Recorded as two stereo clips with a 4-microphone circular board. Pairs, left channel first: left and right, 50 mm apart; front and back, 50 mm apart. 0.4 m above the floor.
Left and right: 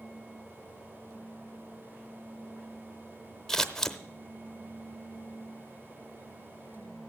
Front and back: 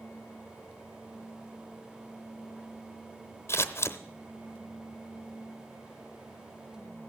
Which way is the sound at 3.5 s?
5° left.